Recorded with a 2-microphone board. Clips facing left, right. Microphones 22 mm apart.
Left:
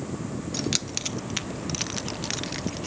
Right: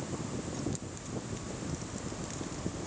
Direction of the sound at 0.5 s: 70° left (ahead or behind).